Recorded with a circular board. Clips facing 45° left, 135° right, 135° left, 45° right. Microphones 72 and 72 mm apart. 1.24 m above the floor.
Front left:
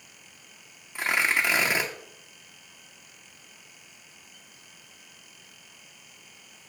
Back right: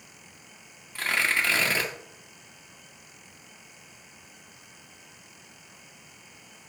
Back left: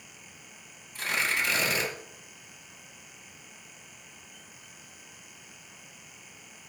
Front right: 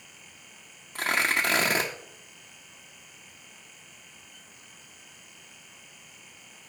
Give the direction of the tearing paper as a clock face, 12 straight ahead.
1 o'clock.